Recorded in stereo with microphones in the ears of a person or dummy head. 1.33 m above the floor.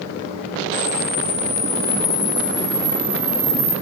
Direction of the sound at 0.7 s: 30° left (ahead or behind).